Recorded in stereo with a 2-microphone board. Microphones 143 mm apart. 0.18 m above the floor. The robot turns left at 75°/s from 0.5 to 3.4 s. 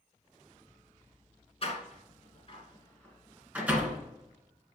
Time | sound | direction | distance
1.6 | a door slam | 45° left (ahead or behind) | 1.8 m